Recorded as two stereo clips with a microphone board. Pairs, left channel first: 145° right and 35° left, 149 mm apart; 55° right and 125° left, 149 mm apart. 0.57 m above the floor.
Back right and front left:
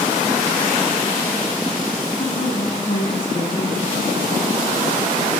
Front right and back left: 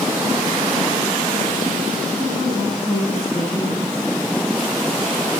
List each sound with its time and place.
2.2 s a woman speaking: 130° right, 5 m; by 4.0 s 120° right, 6.5 m